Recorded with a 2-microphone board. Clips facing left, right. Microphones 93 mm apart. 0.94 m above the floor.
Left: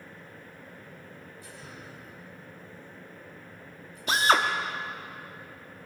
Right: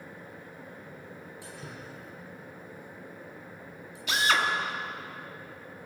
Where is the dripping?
85° right, 7 m.